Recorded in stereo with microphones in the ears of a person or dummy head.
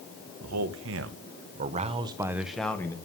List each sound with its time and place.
0.4 s a man speaking: 75° right (ahead or behind), 1.3 m; by 3.0 s 10° left (ahead or behind), 1.0 m